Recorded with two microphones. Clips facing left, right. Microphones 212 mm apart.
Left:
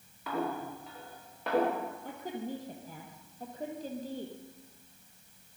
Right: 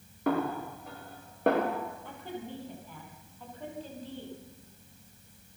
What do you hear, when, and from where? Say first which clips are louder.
0.3 s a snare drum: right 5 dB; 55° right (ahead or behind), 7.5 m
2.0 s a woman speaking: left 3 dB; 40° left (ahead or behind), 5.5 m